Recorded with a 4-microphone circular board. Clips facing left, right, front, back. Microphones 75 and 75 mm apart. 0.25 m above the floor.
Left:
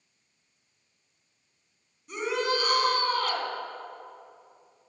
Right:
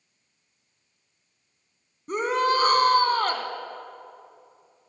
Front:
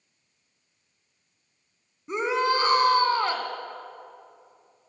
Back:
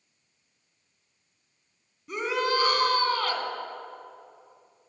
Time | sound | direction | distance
2.1 | a shout | 60° right | 1.9 m